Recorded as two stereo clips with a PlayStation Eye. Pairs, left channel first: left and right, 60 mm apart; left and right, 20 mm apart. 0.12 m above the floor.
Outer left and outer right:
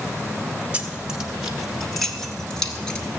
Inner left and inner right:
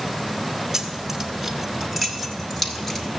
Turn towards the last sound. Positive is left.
turn(degrees=15)  # may be behind; listen again after turning